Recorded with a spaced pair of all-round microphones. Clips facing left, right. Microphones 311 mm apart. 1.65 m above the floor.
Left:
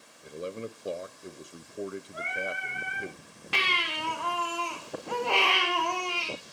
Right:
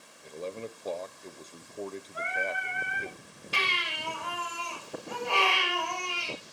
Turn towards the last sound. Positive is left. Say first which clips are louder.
# left 2 dB
turn(degrees=70)  # may be behind; listen again after turning